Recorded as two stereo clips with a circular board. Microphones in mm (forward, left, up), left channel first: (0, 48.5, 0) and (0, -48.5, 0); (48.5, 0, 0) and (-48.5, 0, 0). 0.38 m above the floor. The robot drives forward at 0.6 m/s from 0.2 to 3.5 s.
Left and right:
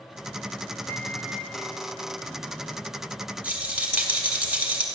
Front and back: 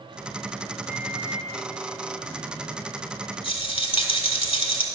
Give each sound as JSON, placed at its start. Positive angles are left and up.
{"t": 0.9, "sound": "a microwave", "azimuth_deg": 140, "distance_m": 0.9}
{"t": 3.4, "sound": "a rattle", "azimuth_deg": -15, "distance_m": 1.3}